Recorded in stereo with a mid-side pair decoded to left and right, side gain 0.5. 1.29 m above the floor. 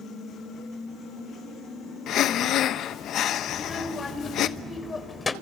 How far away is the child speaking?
About 3.5 m.